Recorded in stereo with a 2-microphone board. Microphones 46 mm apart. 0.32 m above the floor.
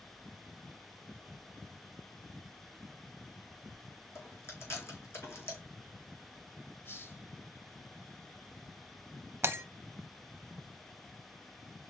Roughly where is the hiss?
Left.